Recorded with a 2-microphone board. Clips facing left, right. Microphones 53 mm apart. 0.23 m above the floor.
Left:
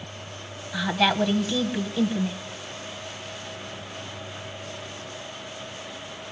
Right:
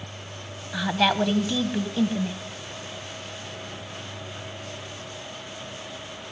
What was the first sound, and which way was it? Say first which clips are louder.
A woman speaking: even; 5° right (ahead or behind).